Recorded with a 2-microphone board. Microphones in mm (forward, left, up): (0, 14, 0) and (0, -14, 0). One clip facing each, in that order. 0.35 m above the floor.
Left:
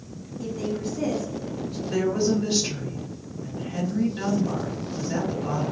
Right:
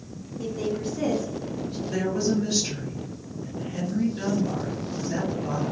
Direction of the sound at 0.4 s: 20° right (ahead or behind).